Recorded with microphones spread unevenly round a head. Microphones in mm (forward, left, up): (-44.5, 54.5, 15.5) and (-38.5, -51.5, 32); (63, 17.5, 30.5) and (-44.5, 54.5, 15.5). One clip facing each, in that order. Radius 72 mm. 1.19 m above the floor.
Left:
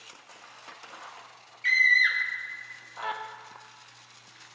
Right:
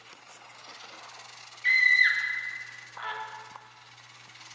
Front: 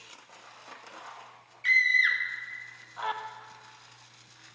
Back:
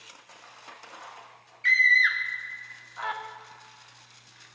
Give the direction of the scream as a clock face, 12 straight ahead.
10 o'clock.